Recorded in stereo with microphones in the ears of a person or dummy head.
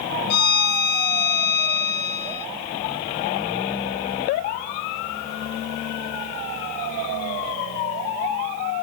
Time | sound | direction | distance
0.3 | a violin | 50° left (ahead or behind) | 0.6 m